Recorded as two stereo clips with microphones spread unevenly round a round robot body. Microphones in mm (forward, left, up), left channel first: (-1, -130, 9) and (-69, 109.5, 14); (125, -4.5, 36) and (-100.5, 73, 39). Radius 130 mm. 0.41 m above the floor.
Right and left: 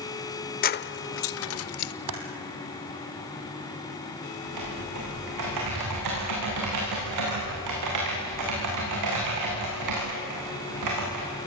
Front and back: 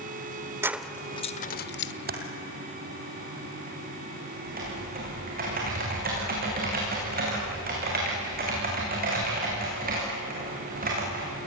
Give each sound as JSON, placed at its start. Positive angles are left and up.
{"t": 0.6, "sound": "keys jangling", "azimuth_deg": -120, "distance_m": 0.7}
{"t": 2.1, "sound": "typing on a keyboard", "azimuth_deg": 110, "distance_m": 2.5}
{"t": 4.4, "sound": "typing on a keyboard", "azimuth_deg": 110, "distance_m": 9.0}